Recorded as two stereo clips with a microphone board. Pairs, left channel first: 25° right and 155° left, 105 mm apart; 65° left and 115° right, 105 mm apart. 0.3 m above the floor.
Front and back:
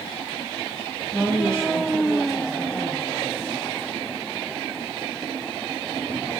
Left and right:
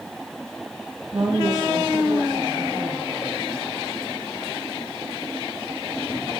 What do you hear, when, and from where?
1.1 s a woman speaking: 130° right, 1.5 m; by 3.3 s 50° right, 3.5 m